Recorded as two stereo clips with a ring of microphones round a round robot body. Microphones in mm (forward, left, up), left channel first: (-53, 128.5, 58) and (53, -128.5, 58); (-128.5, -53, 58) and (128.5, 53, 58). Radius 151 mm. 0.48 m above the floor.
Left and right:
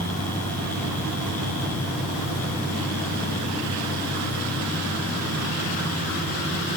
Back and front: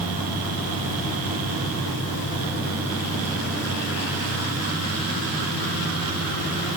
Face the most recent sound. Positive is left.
No sound to turn to.